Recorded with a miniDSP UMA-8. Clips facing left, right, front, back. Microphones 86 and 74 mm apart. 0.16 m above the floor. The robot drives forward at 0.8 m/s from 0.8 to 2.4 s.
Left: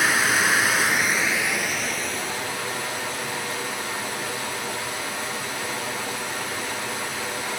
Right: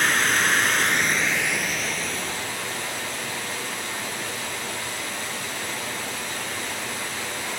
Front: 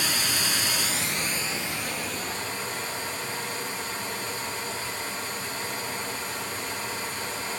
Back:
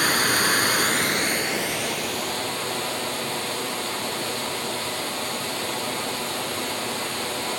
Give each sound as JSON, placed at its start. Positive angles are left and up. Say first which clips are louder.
{"t": 0.0, "sound": "running water", "louder": "left 1 dB, back 8 dB", "azimuth_deg": 175, "distance_m": 0.7}